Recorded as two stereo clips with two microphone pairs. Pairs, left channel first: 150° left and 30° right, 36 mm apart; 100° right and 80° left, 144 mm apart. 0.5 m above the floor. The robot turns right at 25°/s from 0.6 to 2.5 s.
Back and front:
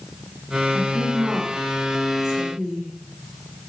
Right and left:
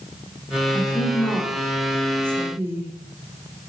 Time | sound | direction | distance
0.7 | a woman speaking | 20° right | 0.8 m